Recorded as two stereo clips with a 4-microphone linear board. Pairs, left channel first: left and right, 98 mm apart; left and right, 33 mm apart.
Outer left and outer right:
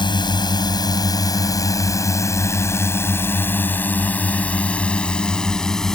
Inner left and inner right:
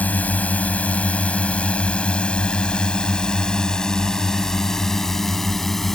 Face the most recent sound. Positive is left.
turn(degrees=5)  # may be behind; listen again after turning